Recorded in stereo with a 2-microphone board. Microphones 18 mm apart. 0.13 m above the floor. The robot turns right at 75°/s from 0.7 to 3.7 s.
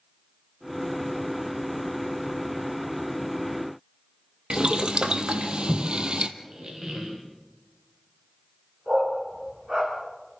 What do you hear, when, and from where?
4.5 s boiling: 65° right (ahead or behind), 1.1 m
6.4 s a squeak: 40° right (ahead or behind), 5 m
8.9 s a dog barking: 40° right (ahead or behind), 7.5 m